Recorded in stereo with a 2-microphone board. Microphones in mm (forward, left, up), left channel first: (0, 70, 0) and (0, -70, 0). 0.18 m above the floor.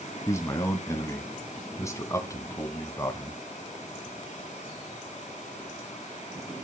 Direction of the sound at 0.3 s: 20° left (ahead or behind).